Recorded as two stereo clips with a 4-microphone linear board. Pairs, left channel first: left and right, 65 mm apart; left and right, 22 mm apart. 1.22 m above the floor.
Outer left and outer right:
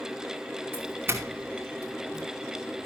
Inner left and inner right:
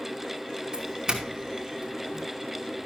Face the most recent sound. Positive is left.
turn(degrees=-35)  # may be behind; listen again after turning